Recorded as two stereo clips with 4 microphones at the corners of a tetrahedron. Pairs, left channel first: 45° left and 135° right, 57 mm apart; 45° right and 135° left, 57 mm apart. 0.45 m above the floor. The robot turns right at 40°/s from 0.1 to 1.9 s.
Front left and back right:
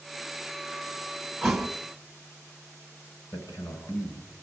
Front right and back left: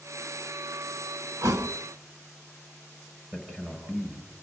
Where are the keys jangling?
No keys jangling in this recording.